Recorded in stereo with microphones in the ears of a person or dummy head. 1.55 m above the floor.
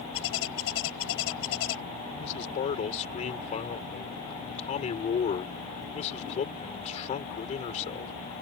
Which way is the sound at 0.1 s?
85° left.